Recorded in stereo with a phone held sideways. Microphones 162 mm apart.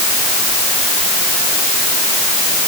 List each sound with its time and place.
Only background noise.